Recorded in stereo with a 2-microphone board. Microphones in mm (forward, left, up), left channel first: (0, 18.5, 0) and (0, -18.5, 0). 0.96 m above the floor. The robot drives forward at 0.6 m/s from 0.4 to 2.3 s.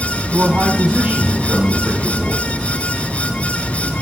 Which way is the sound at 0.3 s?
65° right (ahead or behind).